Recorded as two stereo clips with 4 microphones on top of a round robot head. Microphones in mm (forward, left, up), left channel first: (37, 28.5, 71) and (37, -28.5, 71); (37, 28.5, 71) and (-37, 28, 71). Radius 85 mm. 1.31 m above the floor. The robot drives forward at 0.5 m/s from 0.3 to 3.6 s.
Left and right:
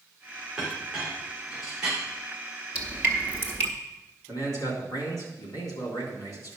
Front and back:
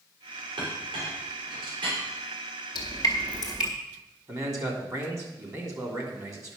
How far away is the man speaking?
About 3 m.